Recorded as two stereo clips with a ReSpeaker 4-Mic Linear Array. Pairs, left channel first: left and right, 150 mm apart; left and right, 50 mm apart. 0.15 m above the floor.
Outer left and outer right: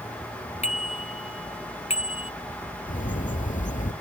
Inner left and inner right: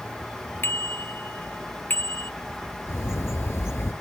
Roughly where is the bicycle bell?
Left.